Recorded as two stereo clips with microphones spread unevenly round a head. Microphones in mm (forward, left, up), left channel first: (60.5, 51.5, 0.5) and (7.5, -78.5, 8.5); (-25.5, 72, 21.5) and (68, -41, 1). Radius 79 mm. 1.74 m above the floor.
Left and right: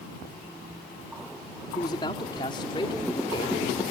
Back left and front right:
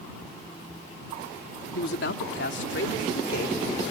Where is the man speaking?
135° left; by 3.9 s 130° left.